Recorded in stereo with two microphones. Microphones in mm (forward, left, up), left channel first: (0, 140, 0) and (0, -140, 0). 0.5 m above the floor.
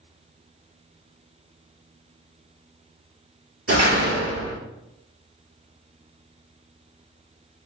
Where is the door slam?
55° right (ahead or behind), 1.3 m.